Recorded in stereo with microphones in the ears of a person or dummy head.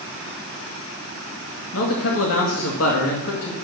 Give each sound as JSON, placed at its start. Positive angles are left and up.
{"t": 1.7, "sound": "a man speaking", "side_deg": 80, "distance_m": 2.0}